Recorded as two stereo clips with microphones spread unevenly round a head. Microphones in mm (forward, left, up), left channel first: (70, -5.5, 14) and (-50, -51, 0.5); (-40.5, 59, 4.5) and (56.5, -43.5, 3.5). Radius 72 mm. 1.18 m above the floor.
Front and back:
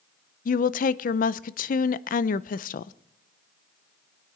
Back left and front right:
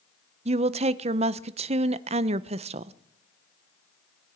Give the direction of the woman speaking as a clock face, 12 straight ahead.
12 o'clock.